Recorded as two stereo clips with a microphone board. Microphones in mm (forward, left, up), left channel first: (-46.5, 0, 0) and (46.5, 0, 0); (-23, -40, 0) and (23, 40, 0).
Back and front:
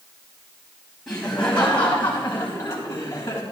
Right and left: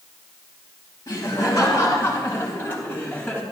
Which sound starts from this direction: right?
Laughter, at 1.1 s.